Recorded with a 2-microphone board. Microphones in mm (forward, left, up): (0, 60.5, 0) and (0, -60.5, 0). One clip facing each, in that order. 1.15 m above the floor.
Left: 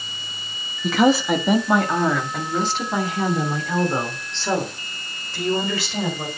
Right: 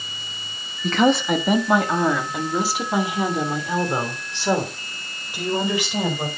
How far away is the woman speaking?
About 1.3 m.